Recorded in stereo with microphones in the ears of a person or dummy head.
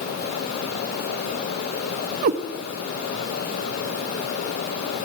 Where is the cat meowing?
40° right (ahead or behind), 0.6 m.